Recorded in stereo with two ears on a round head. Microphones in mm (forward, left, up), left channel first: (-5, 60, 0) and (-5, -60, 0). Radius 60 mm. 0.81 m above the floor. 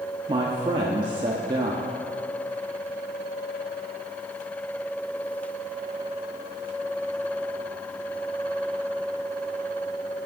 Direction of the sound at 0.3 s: 35° right (ahead or behind).